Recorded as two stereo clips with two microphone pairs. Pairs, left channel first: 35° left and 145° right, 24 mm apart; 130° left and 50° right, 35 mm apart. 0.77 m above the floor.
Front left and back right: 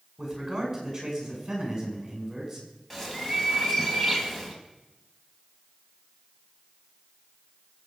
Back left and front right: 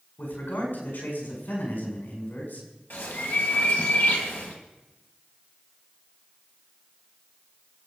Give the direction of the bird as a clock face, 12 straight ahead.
8 o'clock.